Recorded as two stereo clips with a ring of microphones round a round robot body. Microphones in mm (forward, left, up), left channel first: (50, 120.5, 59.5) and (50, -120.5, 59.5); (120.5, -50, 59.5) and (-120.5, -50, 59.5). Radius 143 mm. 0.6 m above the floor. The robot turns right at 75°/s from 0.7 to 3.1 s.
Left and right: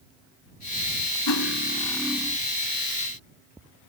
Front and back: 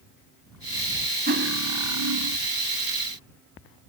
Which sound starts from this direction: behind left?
Cutlery clinking, at 1.3 s.